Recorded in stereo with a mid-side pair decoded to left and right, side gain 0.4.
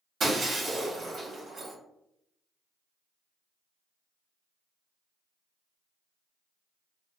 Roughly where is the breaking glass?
Ahead right.